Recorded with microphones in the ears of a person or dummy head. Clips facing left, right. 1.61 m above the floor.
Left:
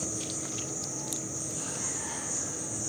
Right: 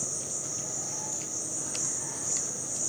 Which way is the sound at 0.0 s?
20° right (ahead or behind).